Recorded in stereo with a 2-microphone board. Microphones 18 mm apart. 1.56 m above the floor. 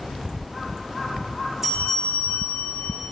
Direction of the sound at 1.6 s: 10° right (ahead or behind).